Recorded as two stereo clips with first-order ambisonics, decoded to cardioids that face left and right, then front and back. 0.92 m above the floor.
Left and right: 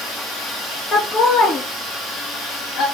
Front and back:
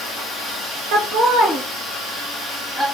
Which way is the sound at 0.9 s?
155° left.